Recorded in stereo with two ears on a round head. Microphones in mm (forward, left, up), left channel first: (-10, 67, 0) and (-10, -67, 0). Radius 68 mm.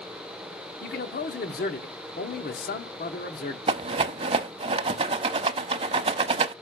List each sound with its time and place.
0.8 s a man speaking: 60° left (ahead or behind), 1.3 m
3.7 s a rattle: 35° right (ahead or behind), 0.7 m